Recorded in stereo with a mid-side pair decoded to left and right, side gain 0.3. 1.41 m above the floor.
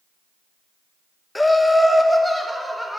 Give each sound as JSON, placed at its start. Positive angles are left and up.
{"t": 1.4, "sound": "laughter", "azimuth_deg": 20, "distance_m": 0.7}